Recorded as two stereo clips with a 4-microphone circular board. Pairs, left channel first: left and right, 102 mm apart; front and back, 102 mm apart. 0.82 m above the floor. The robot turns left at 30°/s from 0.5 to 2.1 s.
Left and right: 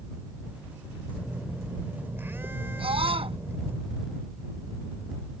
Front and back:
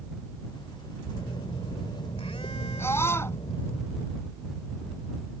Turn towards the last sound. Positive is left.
turn(degrees=-65)